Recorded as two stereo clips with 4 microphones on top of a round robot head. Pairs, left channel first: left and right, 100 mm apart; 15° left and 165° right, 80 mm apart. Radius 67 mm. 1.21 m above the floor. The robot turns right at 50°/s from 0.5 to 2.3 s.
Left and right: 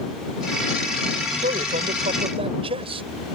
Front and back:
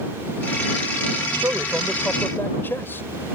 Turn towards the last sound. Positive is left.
turn(degrees=-60)